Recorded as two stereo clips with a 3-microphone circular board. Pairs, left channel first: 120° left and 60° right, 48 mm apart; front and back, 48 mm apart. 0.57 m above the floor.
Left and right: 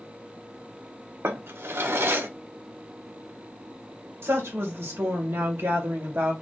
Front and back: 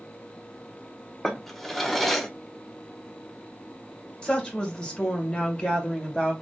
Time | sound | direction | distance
1.2 | a drawer | 85° right | 1.0 m
4.2 | a woman speaking | 65° right | 2.5 m